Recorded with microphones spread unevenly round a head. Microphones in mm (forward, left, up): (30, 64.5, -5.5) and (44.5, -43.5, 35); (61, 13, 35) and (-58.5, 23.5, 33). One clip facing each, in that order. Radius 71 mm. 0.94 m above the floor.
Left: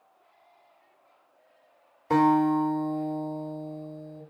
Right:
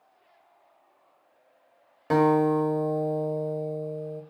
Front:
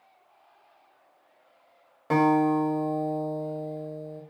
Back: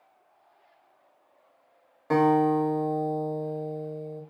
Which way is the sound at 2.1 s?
85° right.